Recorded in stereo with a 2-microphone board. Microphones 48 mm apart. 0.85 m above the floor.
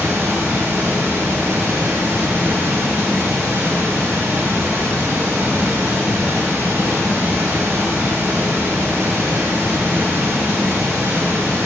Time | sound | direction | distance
0.0 | running water | 65° right (ahead or behind) | 1.2 m